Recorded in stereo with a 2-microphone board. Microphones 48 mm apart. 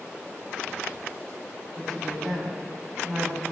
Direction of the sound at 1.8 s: 5° left (ahead or behind).